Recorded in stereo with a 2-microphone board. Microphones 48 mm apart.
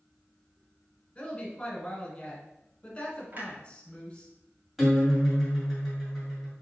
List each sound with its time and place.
1.1 s a woman speaking: 20° left (ahead or behind), 1.5 m
3.3 s a clunk: 40° right (ahead or behind), 1.2 m
4.8 s a guitar: centre (ahead or behind), 2 m